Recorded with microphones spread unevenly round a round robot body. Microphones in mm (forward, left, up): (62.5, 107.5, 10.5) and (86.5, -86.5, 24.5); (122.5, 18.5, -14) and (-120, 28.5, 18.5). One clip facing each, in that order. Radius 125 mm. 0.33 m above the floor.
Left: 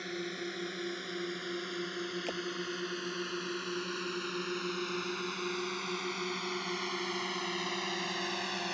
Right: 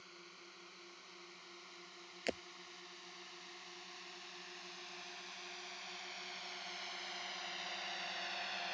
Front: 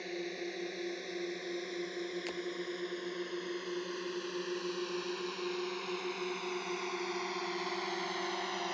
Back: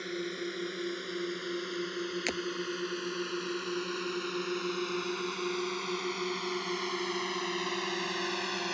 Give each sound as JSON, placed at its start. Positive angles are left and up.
{"t": 0.0, "sound": "a drone", "azimuth_deg": 110}
{"t": 2.3, "sound": "breaking glass", "azimuth_deg": -160}